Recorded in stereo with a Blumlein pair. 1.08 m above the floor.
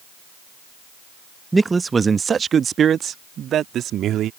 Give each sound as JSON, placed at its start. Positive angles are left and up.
{"t": 1.5, "sound": "a man speaking", "azimuth_deg": -5}